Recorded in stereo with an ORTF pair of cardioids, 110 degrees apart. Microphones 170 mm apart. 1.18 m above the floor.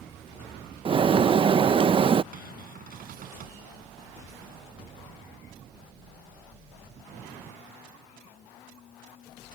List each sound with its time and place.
0.8 s a bird: 30° right
2.3 s a cupboard door: 55° right